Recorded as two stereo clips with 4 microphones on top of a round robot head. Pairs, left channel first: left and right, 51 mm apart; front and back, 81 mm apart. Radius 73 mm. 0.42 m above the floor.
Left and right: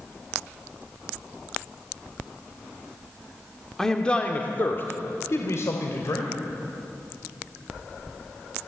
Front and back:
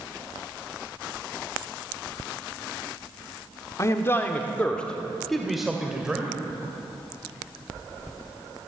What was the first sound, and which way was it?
A man speaking, 10° left.